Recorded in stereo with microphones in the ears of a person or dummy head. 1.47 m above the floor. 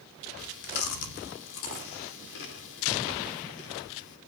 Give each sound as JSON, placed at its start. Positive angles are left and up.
{"t": 0.4, "sound": "chewing", "side_deg": 70, "distance_m": 2.5}